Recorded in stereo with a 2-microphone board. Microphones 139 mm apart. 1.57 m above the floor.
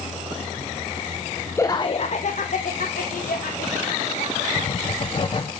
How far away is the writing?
About 1.0 m.